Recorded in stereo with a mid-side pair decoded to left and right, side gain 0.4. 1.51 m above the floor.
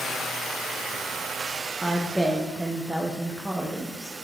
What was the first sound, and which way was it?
A woman speaking, 15° right.